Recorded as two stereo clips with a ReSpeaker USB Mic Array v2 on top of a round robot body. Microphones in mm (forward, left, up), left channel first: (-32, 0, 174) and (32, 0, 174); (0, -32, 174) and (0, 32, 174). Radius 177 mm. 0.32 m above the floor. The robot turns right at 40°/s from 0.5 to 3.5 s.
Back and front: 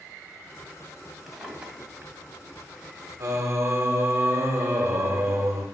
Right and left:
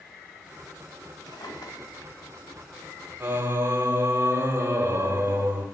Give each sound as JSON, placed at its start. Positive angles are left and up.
{"t": 1.3, "sound": "a drawer", "azimuth_deg": -90, "distance_m": 1.7}
{"t": 3.2, "sound": "singing", "azimuth_deg": 30, "distance_m": 1.3}